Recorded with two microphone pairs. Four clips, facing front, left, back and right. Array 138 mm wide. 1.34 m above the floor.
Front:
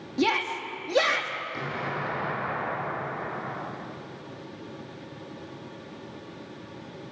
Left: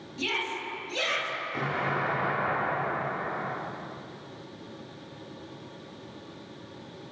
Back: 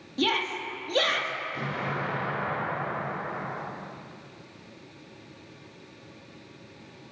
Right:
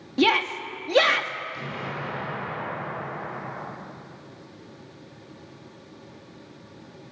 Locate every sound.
0.2 s a shout: 80° right, 2.5 m
1.5 s an explosion: 75° left, 4.5 m